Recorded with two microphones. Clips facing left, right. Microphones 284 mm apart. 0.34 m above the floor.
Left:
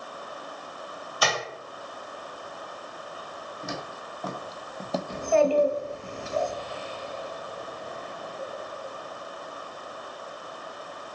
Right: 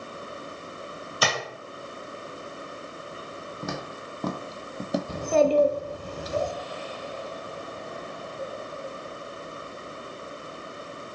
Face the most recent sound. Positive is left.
turn(degrees=-45)  # may be behind; listen again after turning